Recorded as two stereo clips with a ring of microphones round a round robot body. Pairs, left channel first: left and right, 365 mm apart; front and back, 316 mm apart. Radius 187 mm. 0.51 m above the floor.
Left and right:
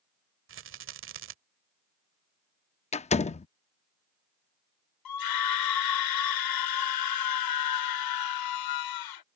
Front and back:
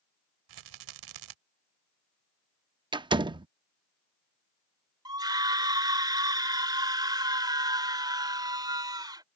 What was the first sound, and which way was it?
A rattle, 150° right.